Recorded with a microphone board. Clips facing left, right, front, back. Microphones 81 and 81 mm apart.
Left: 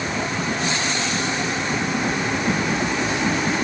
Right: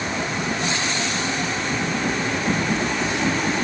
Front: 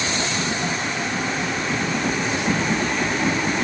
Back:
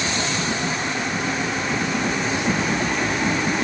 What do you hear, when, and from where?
Only background noise.